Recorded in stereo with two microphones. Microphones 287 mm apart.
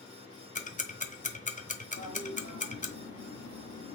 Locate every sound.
0.6 s ticking: 25° left (ahead or behind), 0.7 m
2.0 s a toilet flushing: 75° left (ahead or behind), 2.5 m